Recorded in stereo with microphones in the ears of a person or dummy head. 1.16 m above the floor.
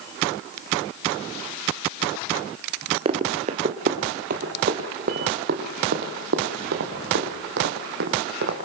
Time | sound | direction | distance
3.0 | running footsteps | 35° right (ahead or behind) | 1.6 m